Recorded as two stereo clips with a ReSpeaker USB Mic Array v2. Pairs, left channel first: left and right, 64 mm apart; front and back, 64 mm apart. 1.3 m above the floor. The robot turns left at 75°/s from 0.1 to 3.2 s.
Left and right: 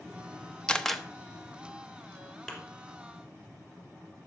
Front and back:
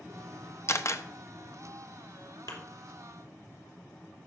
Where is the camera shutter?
20° left, 0.8 m; by 1.0 s 5° right, 0.8 m.